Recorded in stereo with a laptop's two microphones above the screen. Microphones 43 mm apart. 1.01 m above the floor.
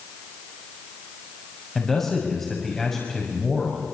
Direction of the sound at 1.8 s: 10° left (ahead or behind).